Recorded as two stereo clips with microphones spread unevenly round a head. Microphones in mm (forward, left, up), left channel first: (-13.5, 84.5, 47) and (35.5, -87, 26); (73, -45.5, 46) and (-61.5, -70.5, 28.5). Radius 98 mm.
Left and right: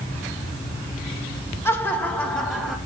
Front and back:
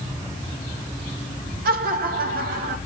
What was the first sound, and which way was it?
Laughter, 175° right.